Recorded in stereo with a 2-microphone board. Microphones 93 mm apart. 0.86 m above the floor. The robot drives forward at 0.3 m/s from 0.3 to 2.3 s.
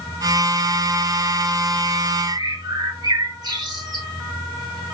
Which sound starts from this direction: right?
A bird, at 2.3 s.